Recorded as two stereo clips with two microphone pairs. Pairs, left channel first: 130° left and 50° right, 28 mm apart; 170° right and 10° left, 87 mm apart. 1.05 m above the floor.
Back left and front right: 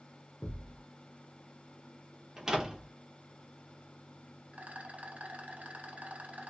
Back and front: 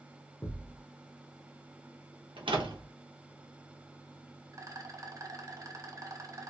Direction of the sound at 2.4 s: 15° left.